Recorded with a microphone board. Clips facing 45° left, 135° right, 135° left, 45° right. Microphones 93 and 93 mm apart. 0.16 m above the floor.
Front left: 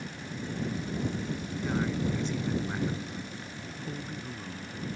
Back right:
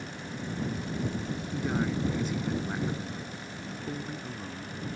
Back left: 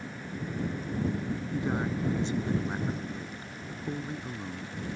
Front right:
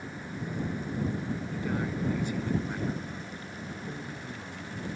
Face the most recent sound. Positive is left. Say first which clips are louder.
# back right 1 dB, back left 3 dB
turn(degrees=150)